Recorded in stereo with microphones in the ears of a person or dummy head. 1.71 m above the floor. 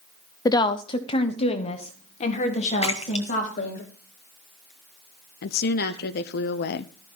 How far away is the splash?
About 1.1 m.